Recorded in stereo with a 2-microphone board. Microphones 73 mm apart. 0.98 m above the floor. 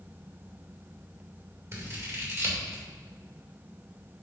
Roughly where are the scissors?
Right.